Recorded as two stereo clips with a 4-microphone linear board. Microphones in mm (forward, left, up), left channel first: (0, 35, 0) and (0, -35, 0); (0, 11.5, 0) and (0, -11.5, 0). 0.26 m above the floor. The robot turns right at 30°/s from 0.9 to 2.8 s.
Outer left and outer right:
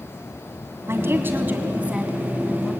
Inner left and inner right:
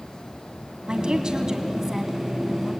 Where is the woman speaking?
55° right, 2 m; by 2.7 s straight ahead, 2 m.